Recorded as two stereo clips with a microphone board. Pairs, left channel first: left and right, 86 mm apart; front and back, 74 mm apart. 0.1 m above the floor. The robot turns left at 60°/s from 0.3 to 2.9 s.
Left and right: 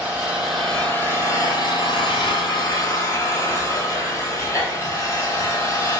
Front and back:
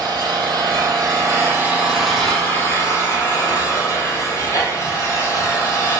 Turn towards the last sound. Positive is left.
turn(degrees=40)